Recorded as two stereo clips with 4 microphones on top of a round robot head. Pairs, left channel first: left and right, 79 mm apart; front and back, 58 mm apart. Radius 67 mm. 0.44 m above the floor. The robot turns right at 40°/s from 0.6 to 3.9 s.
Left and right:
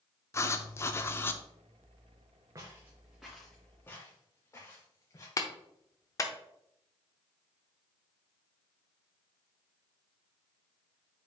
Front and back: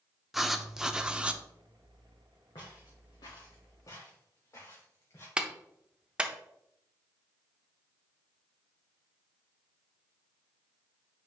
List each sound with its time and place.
0.3 s writing: 100° left, 0.7 m; by 1.4 s 130° left, 0.7 m
2.5 s footsteps: 40° right, 2.5 m; by 5.3 s 40° left, 4.5 m
5.4 s a clap: 115° left, 0.9 m